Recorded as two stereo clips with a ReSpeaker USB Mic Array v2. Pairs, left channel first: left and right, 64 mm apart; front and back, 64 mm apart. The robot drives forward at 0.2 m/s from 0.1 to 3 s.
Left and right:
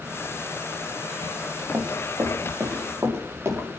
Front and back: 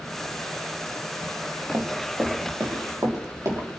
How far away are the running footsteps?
About 3.5 m.